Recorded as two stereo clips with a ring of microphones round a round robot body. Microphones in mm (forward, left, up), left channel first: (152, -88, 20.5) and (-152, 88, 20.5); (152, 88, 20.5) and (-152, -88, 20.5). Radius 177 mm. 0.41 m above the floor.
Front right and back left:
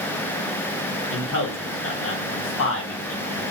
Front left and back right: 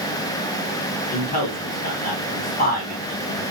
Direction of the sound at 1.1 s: 15° right.